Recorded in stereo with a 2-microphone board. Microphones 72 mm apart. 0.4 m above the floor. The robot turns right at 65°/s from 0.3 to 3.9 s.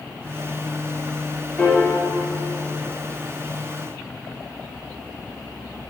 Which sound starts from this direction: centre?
A piano, at 1.6 s.